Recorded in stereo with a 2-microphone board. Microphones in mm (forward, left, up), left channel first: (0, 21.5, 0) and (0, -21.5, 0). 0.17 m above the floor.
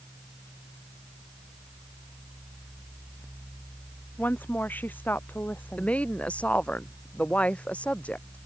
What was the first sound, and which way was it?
A woman speaking, 50° left (ahead or behind).